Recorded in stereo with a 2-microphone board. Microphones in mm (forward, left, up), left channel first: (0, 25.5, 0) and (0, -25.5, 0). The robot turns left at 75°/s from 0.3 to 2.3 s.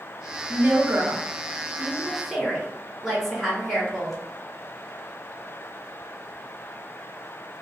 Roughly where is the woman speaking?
Ahead right.